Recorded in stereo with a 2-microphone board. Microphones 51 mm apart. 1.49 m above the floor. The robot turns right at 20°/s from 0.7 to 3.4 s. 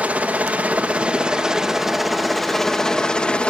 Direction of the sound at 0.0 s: 30° right.